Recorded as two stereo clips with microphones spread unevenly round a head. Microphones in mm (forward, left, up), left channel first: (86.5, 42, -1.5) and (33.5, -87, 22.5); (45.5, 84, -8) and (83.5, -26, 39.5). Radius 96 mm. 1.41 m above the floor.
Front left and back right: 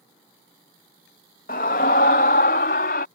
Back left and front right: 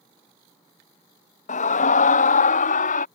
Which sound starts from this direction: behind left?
A scream, at 1.5 s.